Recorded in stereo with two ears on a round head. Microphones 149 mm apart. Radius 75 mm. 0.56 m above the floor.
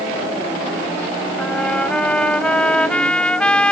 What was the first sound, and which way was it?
A trumpet, 5° left (ahead or behind).